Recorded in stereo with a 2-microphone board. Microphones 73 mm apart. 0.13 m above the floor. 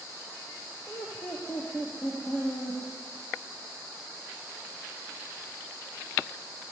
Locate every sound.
0.9 s laughter: 20° left (ahead or behind), 5.5 m; by 2.8 s 30° left (ahead or behind), 5.5 m